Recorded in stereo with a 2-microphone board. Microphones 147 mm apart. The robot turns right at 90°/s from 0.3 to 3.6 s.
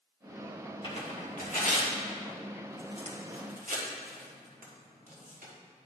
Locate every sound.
0.8 s tearing paper: 30° left (ahead or behind), 1.5 m; by 5.5 s 65° right (ahead or behind), 1.5 m